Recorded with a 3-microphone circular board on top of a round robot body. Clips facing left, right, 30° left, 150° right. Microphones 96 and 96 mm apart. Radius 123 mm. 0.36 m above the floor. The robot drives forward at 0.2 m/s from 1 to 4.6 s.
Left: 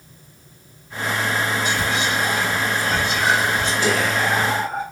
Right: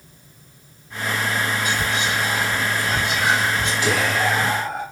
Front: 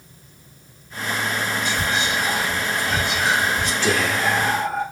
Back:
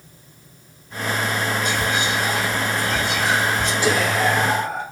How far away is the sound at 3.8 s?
About 1.4 m.